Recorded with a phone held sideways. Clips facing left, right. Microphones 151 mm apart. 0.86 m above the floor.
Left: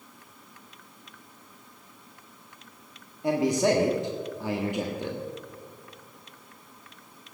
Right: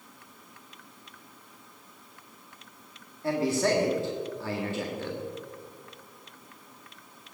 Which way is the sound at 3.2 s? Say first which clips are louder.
Left 3 dB; 15° left (ahead or behind).